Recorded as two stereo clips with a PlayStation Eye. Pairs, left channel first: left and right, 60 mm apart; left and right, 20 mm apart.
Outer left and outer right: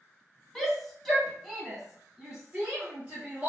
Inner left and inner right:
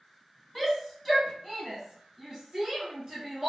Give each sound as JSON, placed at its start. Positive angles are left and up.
{"t": 0.6, "sound": "a shout", "side_deg": 5, "distance_m": 1.2}